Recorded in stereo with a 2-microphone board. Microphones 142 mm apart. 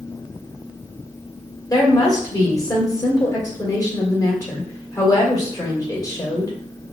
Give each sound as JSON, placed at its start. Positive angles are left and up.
{"t": 1.7, "sound": "a woman speaking", "side_deg": 25, "distance_m": 1.5}